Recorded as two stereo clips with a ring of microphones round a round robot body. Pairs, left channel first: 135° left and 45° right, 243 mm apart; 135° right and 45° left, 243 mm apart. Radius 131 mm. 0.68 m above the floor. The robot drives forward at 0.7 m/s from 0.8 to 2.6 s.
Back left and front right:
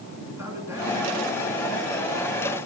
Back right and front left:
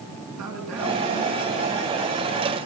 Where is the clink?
I don't hear a clink.